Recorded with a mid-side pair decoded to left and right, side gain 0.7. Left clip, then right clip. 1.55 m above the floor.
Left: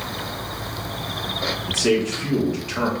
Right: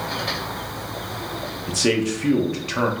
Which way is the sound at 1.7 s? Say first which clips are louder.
Even; 15° right.